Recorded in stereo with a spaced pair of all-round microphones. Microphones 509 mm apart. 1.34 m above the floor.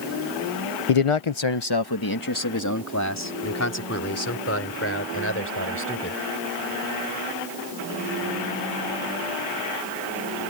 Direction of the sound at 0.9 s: 85° left.